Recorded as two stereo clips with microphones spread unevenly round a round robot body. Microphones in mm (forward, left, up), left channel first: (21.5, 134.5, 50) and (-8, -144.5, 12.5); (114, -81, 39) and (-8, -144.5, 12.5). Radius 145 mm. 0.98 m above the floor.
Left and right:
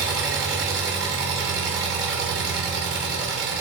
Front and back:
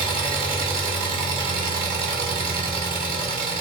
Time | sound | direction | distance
0.0 | an engine running | 175° left | 4.5 m